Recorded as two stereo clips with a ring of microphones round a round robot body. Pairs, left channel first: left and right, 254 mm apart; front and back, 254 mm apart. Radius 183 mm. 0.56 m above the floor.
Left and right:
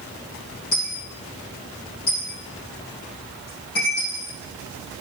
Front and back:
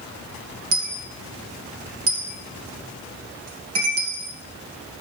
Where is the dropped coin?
155° left, 3 m.